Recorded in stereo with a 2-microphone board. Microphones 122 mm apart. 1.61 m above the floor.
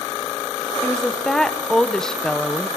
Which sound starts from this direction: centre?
A woman speaking, at 0.8 s.